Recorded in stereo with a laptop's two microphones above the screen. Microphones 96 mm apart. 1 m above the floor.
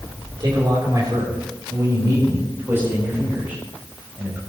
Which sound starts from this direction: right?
A man speaking, at 0.4 s.